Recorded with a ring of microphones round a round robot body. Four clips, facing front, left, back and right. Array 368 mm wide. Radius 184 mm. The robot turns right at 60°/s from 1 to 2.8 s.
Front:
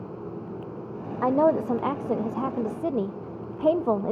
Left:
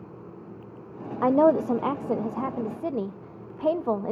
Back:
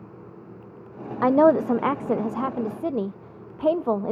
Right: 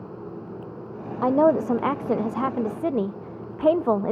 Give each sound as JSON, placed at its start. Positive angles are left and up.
{"t": 1.2, "sound": "a woman speaking", "azimuth_deg": 170, "distance_m": 0.5}